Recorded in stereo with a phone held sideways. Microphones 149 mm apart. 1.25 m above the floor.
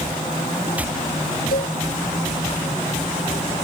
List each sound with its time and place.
1.5 s a cowbell: 90° left